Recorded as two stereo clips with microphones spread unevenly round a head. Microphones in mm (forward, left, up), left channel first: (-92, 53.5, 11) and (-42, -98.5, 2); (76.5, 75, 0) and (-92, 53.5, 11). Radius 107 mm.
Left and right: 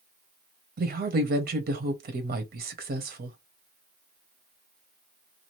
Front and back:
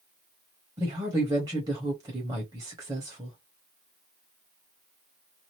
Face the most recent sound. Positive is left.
turn(degrees=-95)